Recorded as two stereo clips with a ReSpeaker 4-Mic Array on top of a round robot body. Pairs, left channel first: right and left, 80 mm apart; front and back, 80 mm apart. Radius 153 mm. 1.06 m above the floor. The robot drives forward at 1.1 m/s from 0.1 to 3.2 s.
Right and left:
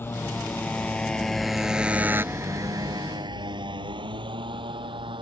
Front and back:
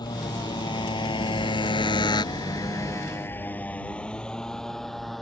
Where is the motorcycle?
30° right; by 5.2 s 90° left.